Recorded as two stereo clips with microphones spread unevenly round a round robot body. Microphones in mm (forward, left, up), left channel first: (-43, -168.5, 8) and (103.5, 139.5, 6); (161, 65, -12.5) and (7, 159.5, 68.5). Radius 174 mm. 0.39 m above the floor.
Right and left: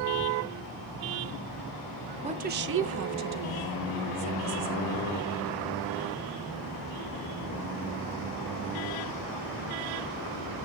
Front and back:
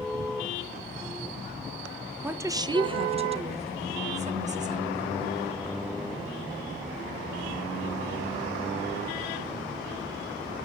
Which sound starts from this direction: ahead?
A woman speaking, at 2.2 s.